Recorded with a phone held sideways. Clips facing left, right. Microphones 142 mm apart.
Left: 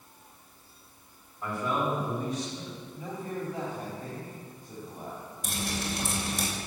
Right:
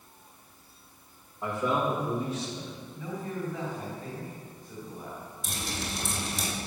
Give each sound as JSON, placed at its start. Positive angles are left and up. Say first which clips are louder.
{"t": 1.4, "sound": "a man speaking", "louder": "right 2 dB", "side_deg": -20, "distance_m": 3.5}
{"t": 2.9, "sound": "a man speaking", "louder": "even", "side_deg": 30, "distance_m": 3.0}
{"t": 5.4, "sound": "dripping", "louder": "left 3 dB", "side_deg": 60, "distance_m": 3.5}